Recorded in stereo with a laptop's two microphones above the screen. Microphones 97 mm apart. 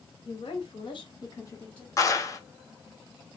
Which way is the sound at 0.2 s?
60° left (ahead or behind).